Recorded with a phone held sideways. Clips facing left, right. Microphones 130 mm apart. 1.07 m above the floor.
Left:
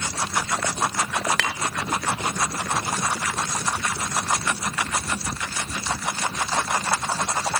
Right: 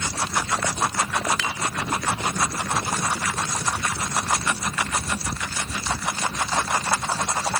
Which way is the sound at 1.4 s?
75° left (ahead or behind).